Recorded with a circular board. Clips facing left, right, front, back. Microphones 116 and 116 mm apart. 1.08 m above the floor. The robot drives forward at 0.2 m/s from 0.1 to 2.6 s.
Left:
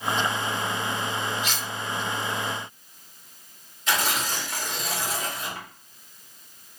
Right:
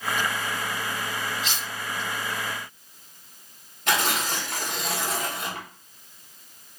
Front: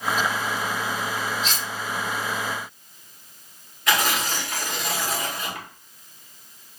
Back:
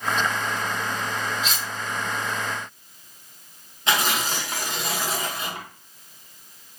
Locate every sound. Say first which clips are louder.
1.4 s cutlery clinking: left 1 dB, even; 90° right, 1.3 m
3.9 s tearing paper: right 1 dB, front 1 dB; 115° right, 1.0 m